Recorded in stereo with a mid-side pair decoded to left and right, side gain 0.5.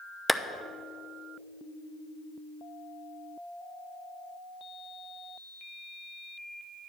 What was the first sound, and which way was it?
A clap, 5° left.